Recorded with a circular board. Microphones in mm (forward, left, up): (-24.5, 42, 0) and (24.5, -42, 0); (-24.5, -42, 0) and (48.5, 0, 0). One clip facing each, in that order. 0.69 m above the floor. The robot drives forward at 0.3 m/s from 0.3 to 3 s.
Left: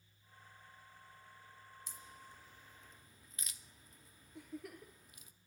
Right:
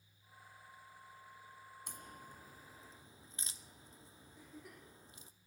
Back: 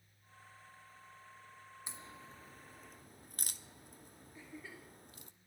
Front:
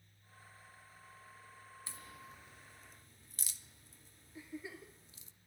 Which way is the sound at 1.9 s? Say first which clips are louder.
Right 5 dB, back 1 dB; 80° right.